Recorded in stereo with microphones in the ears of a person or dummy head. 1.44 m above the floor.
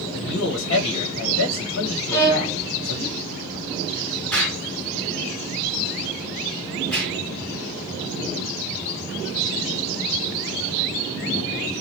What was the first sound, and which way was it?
A man speaking, 80° left.